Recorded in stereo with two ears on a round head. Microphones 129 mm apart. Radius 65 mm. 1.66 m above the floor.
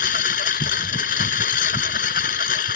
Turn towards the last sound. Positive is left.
turn(degrees=65)  # may be behind; listen again after turning